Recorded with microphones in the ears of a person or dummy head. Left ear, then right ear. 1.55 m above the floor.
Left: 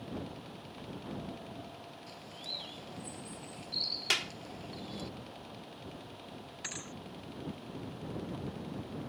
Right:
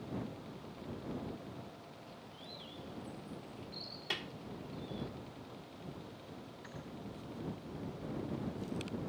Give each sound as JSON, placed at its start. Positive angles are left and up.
{"t": 2.1, "sound": "a bird", "side_deg": 50}
{"t": 4.1, "sound": "a clap", "side_deg": 55}
{"t": 6.6, "sound": "a thud", "side_deg": 65}